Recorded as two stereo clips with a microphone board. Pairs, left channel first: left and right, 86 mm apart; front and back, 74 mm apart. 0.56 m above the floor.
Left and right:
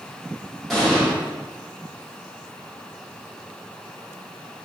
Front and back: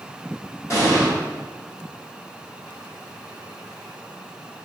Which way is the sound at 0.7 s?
5° right.